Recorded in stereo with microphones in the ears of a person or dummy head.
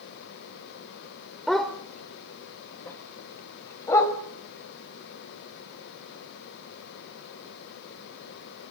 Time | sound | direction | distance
1.5 | a dog barking | centre (ahead or behind) | 2.5 m